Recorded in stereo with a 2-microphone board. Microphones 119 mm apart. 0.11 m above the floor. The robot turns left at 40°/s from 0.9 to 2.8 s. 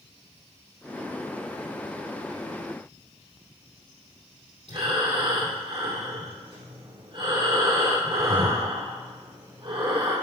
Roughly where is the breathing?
Right.